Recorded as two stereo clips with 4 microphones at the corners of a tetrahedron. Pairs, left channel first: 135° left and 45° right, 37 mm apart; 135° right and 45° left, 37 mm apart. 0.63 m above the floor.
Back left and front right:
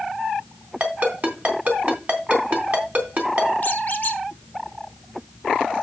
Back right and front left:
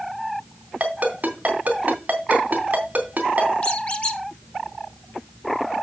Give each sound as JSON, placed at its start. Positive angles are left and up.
{"t": 0.8, "sound": "a ringtone", "azimuth_deg": 0, "distance_m": 3.0}
{"t": 3.6, "sound": "a squeak", "azimuth_deg": 180, "distance_m": 1.2}